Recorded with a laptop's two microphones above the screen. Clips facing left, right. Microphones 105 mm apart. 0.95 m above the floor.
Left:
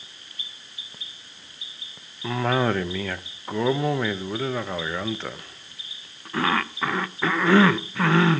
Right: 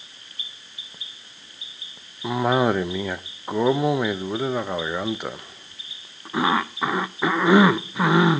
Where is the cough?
15° right (ahead or behind), 0.6 m.